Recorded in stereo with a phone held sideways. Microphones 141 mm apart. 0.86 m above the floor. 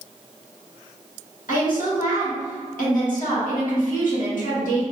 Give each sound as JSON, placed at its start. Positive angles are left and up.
{"t": 1.5, "sound": "a woman speaking", "side_deg": 70, "distance_m": 1.4}